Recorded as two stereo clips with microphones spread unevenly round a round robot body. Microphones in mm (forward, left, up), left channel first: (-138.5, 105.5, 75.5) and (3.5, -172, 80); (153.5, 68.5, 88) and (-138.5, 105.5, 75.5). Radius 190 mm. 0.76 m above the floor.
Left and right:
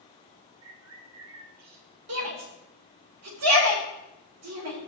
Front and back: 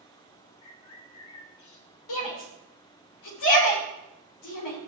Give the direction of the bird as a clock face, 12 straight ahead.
1 o'clock.